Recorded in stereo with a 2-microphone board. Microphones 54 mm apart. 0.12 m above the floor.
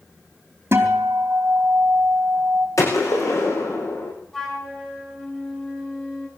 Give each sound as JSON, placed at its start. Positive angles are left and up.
{"t": 0.7, "sound": "a guitar", "side_deg": -45, "distance_m": 4.0}
{"t": 2.8, "sound": "a gunshot", "side_deg": 75, "distance_m": 7.0}
{"t": 4.3, "sound": "a flute", "side_deg": 15, "distance_m": 6.0}